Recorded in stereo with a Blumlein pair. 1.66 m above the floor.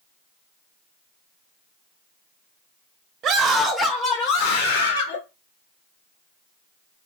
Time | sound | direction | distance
3.2 | a scream | 35° right | 0.7 m